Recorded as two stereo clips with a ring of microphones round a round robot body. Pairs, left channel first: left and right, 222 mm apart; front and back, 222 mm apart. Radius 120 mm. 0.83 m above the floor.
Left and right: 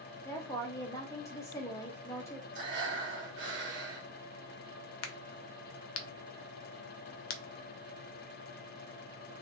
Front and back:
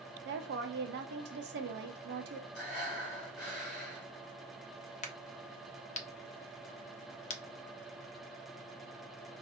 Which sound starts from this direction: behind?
A woman speaking, at 0.2 s.